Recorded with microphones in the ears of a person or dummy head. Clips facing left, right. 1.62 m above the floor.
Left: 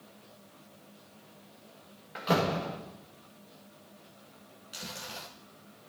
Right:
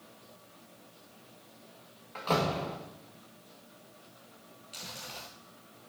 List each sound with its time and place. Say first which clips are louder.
2.1 s a door slam: left 2 dB; 15° left (ahead or behind), 1.8 m
4.7 s chewing: left 3 dB; 15° left (ahead or behind), 0.9 m